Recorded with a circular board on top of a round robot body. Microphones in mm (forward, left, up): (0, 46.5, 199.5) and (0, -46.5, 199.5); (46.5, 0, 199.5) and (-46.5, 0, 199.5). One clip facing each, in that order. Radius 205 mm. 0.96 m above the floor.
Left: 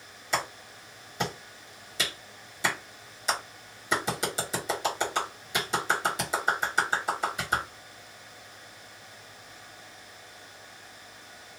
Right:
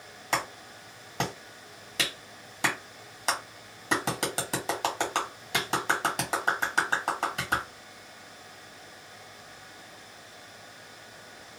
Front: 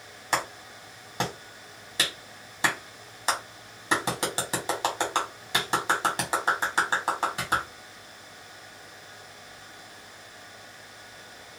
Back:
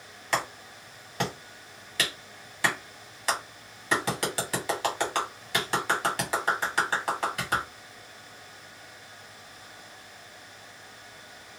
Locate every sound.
0.3 s a clap: 65° right, 1.9 m